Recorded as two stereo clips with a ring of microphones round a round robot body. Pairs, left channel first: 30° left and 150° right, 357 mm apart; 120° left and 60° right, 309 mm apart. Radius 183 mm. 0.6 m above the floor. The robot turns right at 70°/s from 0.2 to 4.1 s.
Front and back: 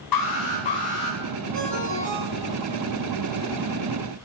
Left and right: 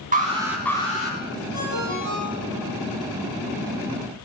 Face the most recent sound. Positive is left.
turn(degrees=-15)